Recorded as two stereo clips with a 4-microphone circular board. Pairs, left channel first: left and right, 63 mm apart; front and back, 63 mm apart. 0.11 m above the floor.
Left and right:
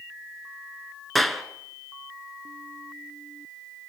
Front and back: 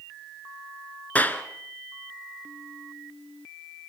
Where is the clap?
5° left, 1.2 m.